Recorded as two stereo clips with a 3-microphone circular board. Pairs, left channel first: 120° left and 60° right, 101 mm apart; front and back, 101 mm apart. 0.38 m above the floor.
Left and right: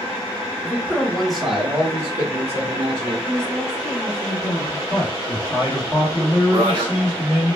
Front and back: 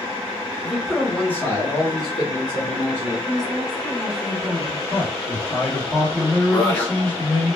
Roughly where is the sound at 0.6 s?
Behind left.